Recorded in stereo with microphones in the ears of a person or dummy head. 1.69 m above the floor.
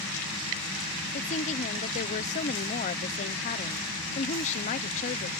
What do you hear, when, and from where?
1.1 s a woman speaking: 40° left (ahead or behind)